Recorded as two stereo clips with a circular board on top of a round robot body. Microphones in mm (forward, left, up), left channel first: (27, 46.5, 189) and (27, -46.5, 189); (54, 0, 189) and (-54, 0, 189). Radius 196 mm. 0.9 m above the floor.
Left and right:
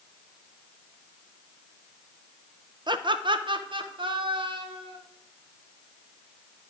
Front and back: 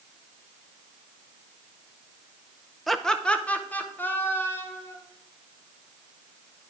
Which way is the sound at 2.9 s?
90° right.